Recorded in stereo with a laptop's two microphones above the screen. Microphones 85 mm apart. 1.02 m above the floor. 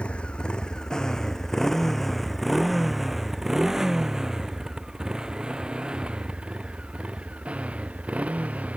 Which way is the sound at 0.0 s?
15° left (ahead or behind).